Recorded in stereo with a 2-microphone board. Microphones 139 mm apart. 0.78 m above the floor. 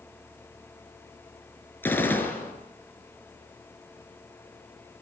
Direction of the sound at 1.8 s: 15° left (ahead or behind).